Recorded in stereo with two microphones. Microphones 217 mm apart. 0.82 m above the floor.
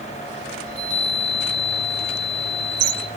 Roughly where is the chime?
Right.